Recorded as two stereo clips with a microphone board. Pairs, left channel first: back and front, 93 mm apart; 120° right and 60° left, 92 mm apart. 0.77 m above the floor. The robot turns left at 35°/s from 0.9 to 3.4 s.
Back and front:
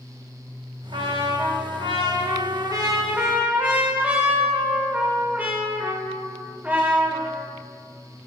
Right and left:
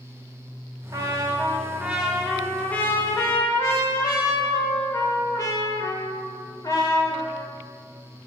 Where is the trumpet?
15° left, 1.5 m; by 7.5 s 70° right, 1.5 m.